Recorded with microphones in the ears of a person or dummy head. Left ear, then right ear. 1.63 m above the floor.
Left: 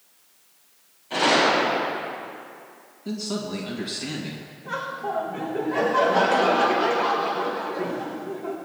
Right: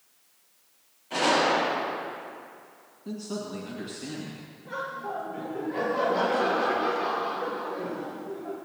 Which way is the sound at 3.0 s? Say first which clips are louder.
Left 5 dB; 25° left (ahead or behind).